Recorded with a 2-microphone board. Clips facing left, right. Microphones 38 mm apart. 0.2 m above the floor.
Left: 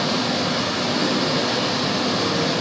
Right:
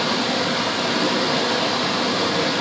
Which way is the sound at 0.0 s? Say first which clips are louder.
Right 1 dB; 85° right.